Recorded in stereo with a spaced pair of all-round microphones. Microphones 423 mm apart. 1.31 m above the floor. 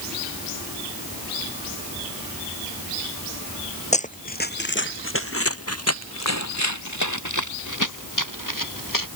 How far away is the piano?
No piano in this recording.